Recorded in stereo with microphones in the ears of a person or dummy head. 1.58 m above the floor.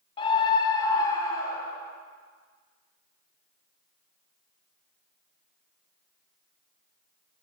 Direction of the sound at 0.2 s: 30° left (ahead or behind).